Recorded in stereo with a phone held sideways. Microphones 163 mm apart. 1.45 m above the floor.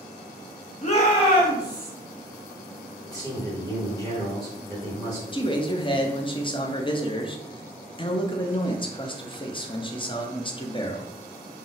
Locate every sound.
0.8 s a shout: 45° left (ahead or behind), 1.1 m; by 1.9 s 15° left (ahead or behind), 1.6 m
3.1 s a man speaking: 20° left (ahead or behind), 1.4 m
5.3 s a man speaking: 30° left (ahead or behind), 0.5 m